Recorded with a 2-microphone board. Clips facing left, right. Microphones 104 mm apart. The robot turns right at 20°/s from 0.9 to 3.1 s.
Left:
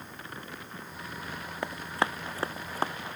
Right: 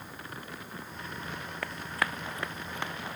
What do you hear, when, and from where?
1.6 s running footsteps: 20° left (ahead or behind); by 2.9 s 40° left (ahead or behind)